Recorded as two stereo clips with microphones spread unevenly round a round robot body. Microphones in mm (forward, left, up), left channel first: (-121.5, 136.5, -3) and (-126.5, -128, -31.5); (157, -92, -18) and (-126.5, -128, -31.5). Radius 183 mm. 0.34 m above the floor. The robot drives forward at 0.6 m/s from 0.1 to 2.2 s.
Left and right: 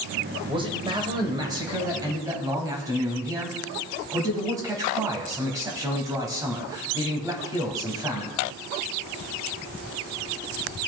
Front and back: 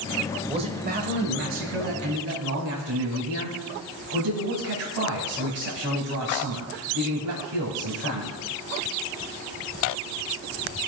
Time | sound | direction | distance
0.5 | a man speaking | 125° right | 0.9 m